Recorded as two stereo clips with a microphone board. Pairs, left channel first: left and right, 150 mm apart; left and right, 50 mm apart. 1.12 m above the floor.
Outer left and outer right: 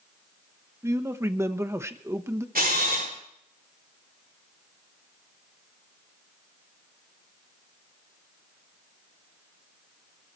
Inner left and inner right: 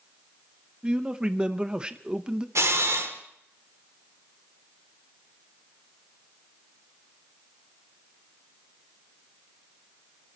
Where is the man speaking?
20° right (ahead or behind), 1.0 m.